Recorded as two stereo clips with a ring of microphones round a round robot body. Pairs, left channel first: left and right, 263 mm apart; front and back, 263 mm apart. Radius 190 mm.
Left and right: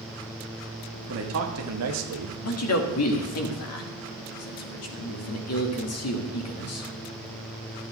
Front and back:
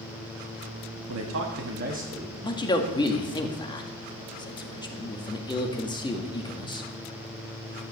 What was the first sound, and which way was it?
A man speaking, 140° right.